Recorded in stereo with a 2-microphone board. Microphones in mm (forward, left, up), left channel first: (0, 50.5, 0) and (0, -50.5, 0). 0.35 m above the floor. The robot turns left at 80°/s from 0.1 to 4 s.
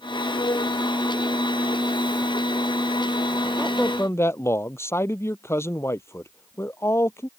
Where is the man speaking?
175° right; by 7.3 s 155° left.